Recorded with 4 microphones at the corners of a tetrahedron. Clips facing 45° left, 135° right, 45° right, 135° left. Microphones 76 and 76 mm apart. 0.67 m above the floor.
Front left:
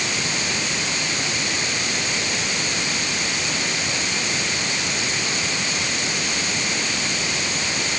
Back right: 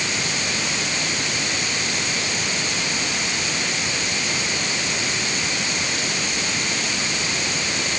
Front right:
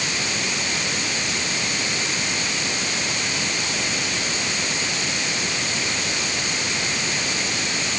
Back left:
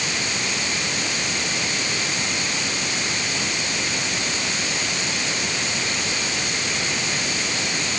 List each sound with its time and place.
Only background noise.